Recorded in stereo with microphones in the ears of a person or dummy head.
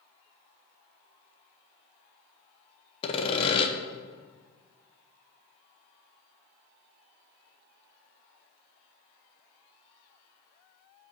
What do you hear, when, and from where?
3.0 s sawing: 25° left (ahead or behind), 0.7 m